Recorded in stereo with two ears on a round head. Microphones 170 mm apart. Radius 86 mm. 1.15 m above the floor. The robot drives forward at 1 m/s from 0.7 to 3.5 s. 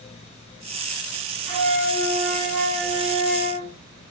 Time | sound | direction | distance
1.5 | a flute | 50° right (ahead or behind) | 5 m